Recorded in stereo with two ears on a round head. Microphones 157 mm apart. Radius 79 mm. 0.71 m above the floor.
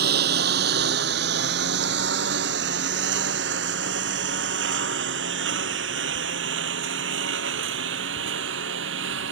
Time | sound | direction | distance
0.0 | a lawn mower | 65° right (ahead or behind) | ?